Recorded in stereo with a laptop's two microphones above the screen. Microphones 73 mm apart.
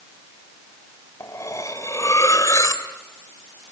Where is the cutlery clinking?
45° left (ahead or behind), 2.5 m.